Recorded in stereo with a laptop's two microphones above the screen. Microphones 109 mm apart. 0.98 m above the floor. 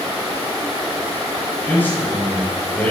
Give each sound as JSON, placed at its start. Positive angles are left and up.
{"t": 1.7, "sound": "a man speaking", "side_deg": 15, "distance_m": 5.5}